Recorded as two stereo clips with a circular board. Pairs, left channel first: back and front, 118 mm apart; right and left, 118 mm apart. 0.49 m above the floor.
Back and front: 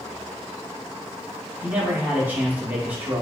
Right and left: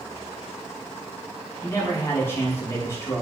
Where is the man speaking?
55° right, 0.7 m.